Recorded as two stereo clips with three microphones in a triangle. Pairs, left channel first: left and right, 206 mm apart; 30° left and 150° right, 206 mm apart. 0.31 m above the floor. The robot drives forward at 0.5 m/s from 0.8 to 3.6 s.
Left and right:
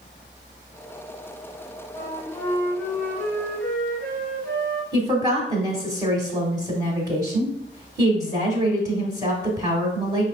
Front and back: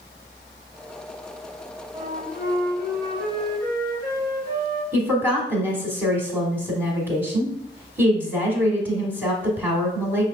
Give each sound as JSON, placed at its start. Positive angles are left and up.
{"t": 1.9, "sound": "a flute", "azimuth_deg": 165, "distance_m": 0.9}
{"t": 4.9, "sound": "a woman speaking", "azimuth_deg": -90, "distance_m": 1.2}